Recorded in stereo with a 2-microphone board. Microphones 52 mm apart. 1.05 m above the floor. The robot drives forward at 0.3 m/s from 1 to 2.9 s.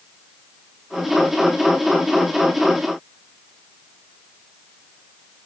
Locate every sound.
Only background noise.